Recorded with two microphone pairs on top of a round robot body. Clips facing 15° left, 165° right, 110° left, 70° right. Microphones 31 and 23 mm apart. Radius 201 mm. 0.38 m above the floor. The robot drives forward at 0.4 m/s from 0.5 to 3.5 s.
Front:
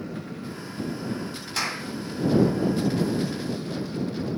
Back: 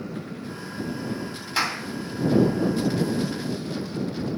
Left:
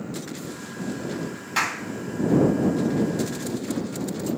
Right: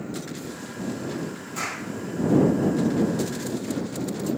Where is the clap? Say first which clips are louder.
Back 4 dB, left 6 dB; 125° left, 3 m.